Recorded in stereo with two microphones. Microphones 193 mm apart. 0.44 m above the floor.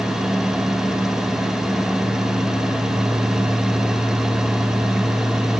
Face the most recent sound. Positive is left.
No sound to turn to.